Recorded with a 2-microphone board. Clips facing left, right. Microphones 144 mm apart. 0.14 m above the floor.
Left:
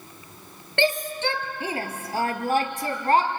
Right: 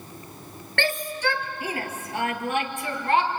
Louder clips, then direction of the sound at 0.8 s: Left 3 dB; 20° left (ahead or behind).